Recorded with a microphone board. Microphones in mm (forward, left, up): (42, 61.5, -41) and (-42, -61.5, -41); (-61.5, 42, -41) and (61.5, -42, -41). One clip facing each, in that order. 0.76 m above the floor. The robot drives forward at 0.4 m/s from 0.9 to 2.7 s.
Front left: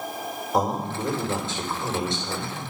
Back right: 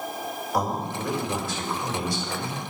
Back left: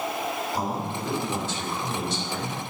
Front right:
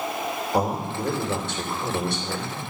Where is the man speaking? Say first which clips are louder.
Front left 3 dB, front right 4 dB; 10° right, 3 m.